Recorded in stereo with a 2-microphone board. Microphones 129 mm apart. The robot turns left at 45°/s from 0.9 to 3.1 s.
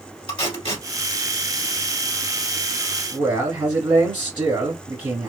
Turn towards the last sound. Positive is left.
turn(degrees=-15)  # may be behind; listen again after turning